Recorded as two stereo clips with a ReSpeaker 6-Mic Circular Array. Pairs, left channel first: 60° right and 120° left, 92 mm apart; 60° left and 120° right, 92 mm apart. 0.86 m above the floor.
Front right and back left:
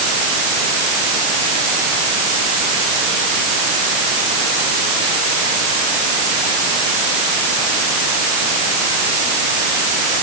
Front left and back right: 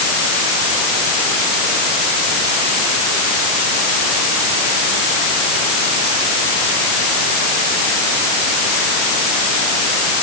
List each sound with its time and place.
Only background noise.